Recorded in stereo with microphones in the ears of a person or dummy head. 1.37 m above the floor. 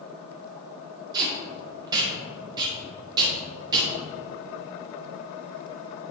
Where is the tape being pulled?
25° right (ahead or behind), 1.9 m.